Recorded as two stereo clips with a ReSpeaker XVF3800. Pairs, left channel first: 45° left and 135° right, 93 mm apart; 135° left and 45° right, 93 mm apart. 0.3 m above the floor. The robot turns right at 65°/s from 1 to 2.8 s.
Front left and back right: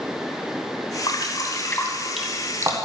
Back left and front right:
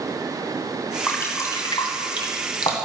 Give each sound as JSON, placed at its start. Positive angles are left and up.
{"t": 1.1, "sound": "dripping", "azimuth_deg": 65, "distance_m": 1.3}